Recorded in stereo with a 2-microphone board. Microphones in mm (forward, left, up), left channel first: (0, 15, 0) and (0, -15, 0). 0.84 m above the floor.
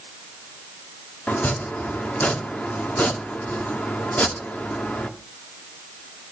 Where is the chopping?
55° left (ahead or behind), 1.7 m.